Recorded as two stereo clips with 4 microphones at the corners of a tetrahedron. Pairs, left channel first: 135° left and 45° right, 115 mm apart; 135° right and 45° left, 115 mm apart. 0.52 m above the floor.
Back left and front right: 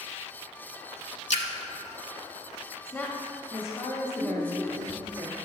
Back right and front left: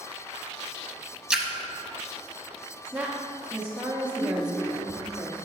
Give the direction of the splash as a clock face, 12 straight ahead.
8 o'clock.